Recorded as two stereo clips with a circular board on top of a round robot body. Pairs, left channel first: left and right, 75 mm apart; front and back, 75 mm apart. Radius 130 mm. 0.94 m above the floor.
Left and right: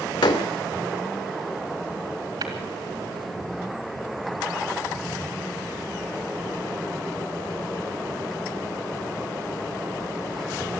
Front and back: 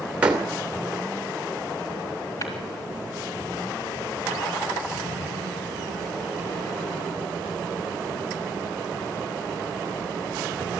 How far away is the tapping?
About 2.5 m.